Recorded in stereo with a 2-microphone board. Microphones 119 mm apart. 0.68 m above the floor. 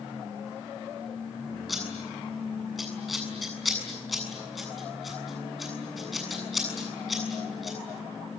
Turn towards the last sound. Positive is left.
turn(degrees=0)  # may be behind; listen again after turning